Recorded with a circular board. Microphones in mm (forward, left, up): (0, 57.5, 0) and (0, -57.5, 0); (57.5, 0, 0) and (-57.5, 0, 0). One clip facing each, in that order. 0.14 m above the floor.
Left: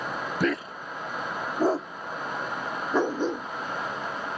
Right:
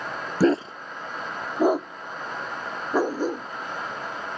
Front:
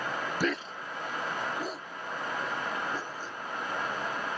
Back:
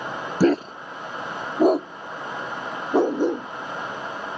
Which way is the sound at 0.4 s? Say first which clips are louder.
Right 9 dB, back 17 dB; 140° right.